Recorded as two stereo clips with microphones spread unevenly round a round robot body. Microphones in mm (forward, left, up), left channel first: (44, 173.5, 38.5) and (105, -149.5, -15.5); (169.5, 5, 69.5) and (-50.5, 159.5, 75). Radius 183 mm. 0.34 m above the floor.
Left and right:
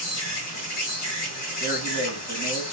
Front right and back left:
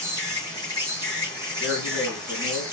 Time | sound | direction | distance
0.0 | an insect | 65° left | 1.8 m
1.6 | a man speaking | 155° left | 1.4 m